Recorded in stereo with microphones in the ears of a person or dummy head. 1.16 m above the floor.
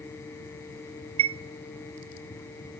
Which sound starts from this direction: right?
A chime, at 1.2 s.